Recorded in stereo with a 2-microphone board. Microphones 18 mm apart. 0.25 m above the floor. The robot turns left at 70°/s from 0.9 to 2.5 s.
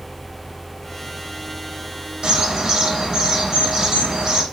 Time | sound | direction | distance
2.2 | a bird | 50° right (ahead or behind) | 0.7 m